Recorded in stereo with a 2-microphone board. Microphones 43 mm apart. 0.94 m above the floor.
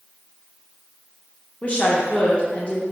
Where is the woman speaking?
25° left (ahead or behind), 0.5 m.